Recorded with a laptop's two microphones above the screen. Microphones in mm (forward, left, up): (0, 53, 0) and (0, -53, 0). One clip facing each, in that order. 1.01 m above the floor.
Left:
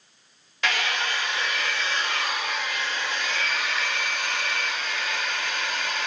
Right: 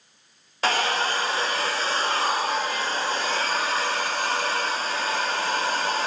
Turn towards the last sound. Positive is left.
turn(degrees=-35)  # may be behind; listen again after turning